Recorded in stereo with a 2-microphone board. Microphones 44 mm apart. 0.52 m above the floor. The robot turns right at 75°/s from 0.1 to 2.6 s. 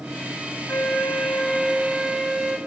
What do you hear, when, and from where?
0.7 s a flute: 80° left, 0.6 m; by 2.6 s 135° right, 0.6 m